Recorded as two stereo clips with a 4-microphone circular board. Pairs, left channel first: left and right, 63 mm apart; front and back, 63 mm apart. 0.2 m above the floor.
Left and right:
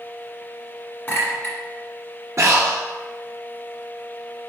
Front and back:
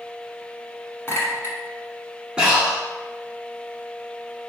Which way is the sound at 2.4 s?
110° right.